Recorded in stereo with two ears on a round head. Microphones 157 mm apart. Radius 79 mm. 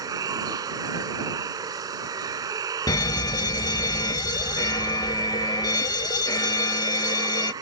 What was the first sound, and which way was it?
Running water, 20° right (ahead or behind).